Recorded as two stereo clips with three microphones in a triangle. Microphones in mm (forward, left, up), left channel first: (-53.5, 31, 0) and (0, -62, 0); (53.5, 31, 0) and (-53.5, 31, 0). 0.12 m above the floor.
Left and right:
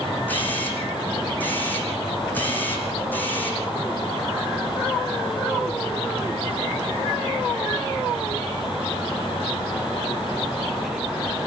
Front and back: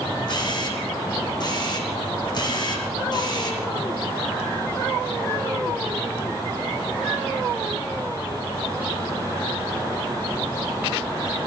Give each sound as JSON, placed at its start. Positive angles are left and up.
{"t": 0.3, "sound": "a camera shutter", "azimuth_deg": 45, "distance_m": 6.5}